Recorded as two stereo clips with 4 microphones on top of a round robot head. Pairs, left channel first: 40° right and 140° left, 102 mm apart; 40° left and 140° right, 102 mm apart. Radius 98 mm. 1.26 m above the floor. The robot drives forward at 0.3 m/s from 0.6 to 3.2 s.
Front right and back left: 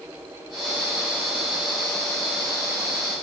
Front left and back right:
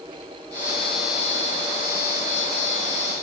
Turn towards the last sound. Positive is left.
No sound to turn to.